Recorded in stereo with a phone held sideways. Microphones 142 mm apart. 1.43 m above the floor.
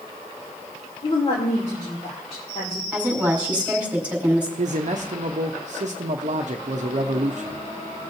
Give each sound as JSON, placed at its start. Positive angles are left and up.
{"t": 1.0, "sound": "a woman speaking", "side_deg": 40, "distance_m": 2.5}
{"t": 2.9, "sound": "a woman speaking", "side_deg": -10, "distance_m": 5.5}
{"t": 4.6, "sound": "a man speaking", "side_deg": -55, "distance_m": 0.7}